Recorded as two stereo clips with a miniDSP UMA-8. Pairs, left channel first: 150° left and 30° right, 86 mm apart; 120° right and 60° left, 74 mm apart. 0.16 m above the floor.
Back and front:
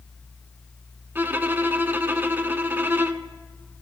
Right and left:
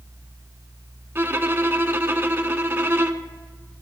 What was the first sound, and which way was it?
A violin, 20° left.